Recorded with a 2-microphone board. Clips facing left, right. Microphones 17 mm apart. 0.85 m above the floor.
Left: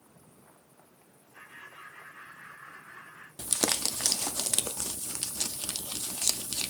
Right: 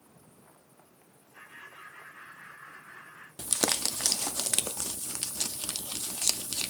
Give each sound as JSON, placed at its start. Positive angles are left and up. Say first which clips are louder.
{"t": 1.3, "sound": "laughter", "louder": "even", "side_deg": 20, "distance_m": 3.0}
{"t": 3.4, "sound": "crumpling", "louder": "even", "side_deg": -20, "distance_m": 0.5}